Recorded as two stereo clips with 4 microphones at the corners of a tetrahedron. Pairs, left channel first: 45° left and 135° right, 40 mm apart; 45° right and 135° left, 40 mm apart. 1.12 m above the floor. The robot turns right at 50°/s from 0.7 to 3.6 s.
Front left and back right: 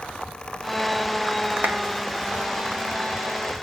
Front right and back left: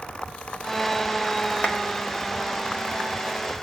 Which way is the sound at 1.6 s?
110° right.